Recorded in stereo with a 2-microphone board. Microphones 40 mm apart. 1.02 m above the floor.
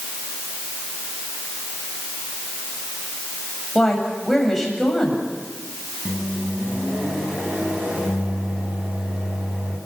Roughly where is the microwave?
Right.